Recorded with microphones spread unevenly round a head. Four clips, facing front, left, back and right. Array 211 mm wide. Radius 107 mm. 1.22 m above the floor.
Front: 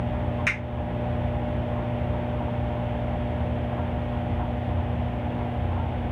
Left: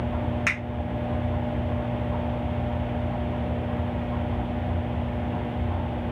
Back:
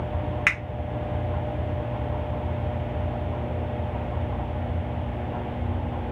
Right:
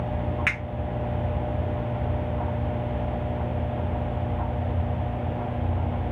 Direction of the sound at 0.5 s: 165° left.